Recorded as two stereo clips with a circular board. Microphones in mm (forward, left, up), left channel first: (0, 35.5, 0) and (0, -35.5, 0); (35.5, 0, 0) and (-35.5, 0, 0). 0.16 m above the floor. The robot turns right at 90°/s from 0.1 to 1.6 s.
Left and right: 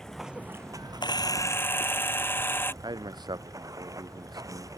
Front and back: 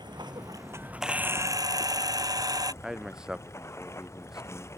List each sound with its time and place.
0.0 s running water: 175° left; by 4.8 s 50° right
1.0 s a camera shutter: 95° left; by 2.7 s 150° left
2.8 s a man speaking: 100° right